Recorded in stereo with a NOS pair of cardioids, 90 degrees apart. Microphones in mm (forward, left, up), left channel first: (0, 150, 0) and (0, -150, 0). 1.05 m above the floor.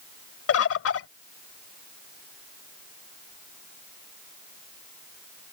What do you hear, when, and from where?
0.5 s a bird: 55° left